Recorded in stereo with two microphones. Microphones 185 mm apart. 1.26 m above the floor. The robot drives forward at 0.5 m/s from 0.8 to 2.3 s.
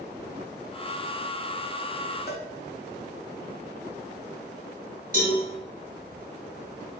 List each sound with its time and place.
2.3 s a cowbell: 60° left (ahead or behind), 0.7 m
5.1 s a cowbell: 50° right (ahead or behind), 1.7 m